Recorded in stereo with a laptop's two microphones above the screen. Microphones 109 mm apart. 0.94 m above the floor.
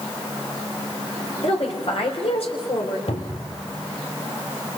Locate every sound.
1.4 s a woman speaking: 70° left (ahead or behind), 4 m
3.1 s a cupboard door: 80° left, 2.0 m